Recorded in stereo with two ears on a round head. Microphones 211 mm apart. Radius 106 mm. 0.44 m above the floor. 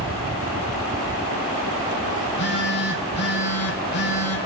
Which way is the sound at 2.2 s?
50° left (ahead or behind).